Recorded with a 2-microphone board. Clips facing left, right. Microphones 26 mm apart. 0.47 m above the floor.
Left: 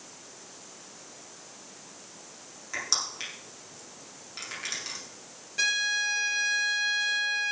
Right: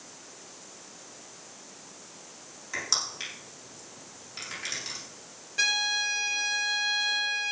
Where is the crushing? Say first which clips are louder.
Even; 5° left (ahead or behind), 6.5 m.